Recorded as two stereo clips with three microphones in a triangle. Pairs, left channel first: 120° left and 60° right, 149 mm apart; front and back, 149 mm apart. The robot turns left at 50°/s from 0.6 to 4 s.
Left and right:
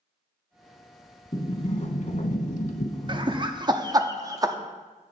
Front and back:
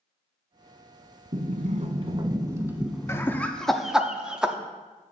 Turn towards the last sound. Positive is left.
turn(degrees=-100)